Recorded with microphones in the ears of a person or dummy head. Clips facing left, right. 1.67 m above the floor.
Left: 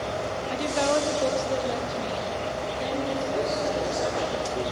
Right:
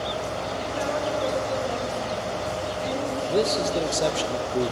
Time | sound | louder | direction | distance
0.5 | a woman speaking | left 6 dB | 80° left | 1.1 m
3.3 | a man speaking | right 7 dB | 40° right (ahead or behind) | 0.7 m